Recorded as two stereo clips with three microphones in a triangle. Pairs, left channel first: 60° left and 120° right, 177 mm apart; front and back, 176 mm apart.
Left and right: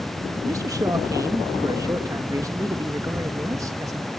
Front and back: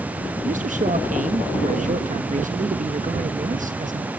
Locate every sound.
0.5 s a man speaking: 175° left, 1.2 m